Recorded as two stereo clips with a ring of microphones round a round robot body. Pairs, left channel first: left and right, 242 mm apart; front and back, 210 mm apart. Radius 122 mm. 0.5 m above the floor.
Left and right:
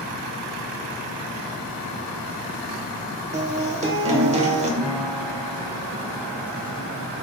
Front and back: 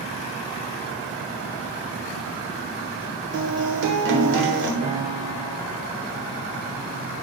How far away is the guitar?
About 1.1 m.